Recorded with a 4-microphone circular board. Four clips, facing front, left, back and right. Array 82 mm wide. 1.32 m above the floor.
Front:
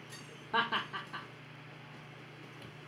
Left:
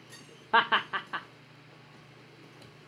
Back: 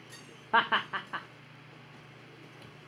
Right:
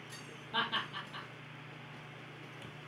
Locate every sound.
0.5 s laughter: 120° left, 0.6 m